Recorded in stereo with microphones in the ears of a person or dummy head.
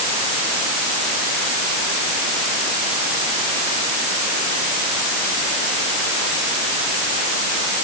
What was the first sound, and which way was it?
Only background noise.